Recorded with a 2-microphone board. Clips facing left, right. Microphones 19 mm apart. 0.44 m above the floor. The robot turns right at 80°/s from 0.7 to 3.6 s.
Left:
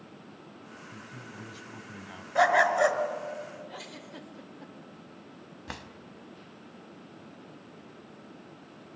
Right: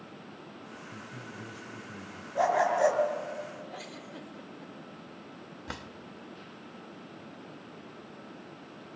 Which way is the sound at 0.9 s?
20° right.